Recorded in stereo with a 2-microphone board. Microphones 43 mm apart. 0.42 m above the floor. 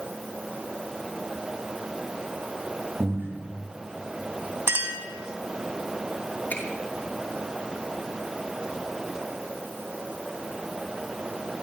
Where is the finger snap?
40° left (ahead or behind), 6 m.